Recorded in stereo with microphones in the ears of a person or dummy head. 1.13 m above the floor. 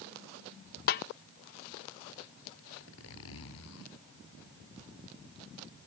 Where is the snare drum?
40° left (ahead or behind).